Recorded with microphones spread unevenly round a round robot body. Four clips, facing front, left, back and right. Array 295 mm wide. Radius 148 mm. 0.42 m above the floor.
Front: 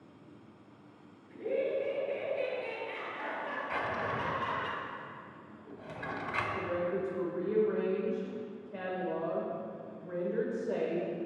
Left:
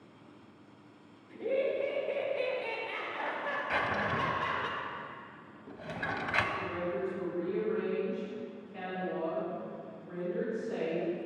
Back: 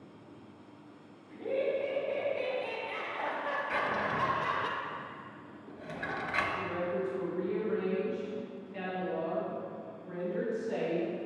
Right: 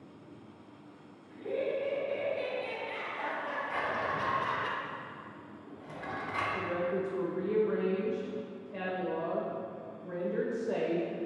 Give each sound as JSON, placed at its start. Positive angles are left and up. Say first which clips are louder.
{"t": 1.3, "sound": "laughter", "louder": "left 2 dB, back 1 dB", "azimuth_deg": 70, "distance_m": 2.0}
{"t": 3.7, "sound": "a drawer", "louder": "left 2 dB, back 1 dB", "azimuth_deg": 95, "distance_m": 0.9}
{"t": 6.5, "sound": "a woman speaking", "louder": "right 2 dB, front 1 dB", "azimuth_deg": -40, "distance_m": 1.7}